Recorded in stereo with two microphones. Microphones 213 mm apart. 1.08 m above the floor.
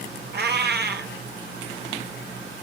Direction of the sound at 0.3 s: 50° right (ahead or behind).